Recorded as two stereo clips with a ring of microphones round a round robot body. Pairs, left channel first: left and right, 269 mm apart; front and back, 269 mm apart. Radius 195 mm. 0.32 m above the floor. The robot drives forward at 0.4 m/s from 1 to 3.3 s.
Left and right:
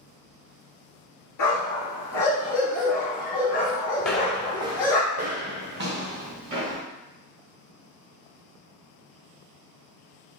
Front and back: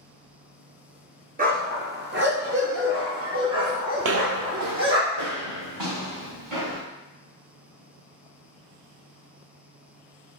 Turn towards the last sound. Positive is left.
turn(degrees=-130)